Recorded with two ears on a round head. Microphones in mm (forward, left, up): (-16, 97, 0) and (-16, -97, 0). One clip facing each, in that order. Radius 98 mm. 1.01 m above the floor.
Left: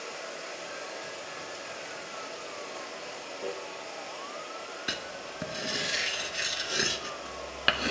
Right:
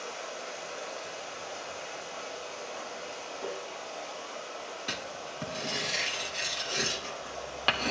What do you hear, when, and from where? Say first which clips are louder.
0.0 s running water: even; 60° left (ahead or behind), 4.5 m
3.4 s tapping: left 1 dB; 55° left (ahead or behind), 5.5 m
4.9 s writing: even; 15° left (ahead or behind), 0.7 m